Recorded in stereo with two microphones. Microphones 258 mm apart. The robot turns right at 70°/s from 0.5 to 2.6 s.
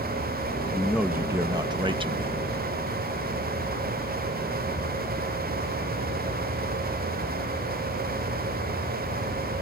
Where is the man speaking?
Centre (ahead or behind); by 2.4 s 20° right (ahead or behind).